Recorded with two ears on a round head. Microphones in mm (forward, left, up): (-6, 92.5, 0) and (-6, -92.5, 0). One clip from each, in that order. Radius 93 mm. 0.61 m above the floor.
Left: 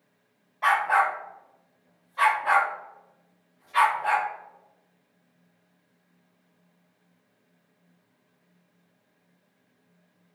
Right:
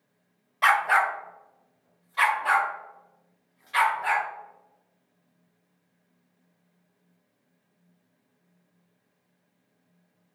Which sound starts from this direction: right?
A dog barking, at 0.6 s.